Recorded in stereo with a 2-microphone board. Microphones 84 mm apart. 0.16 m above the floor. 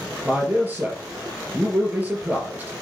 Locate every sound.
0.2 s a man speaking: 20° right (ahead or behind), 4 m